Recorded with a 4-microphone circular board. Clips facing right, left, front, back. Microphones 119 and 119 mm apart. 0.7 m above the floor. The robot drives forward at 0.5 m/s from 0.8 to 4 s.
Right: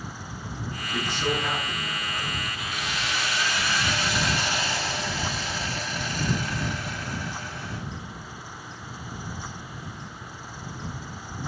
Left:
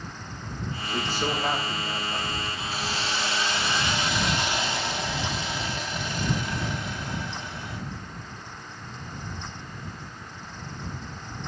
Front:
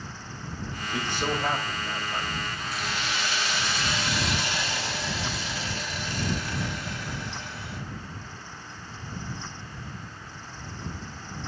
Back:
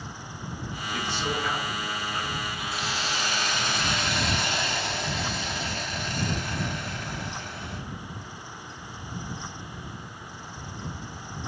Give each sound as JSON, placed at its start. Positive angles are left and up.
{"t": 0.9, "sound": "a man speaking", "azimuth_deg": 40, "distance_m": 2.5}
{"t": 2.7, "sound": "a hiss", "azimuth_deg": 130, "distance_m": 0.9}